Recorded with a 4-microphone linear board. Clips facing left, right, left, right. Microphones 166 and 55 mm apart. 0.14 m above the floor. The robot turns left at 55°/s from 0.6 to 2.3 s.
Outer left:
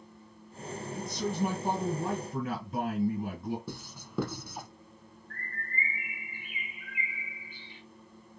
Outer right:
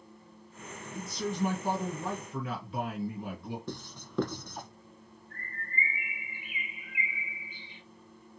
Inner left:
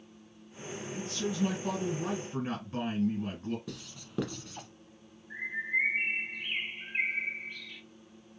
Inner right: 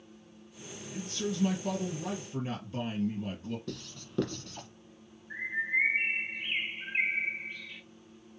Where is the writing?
5° left (ahead or behind), 0.8 m.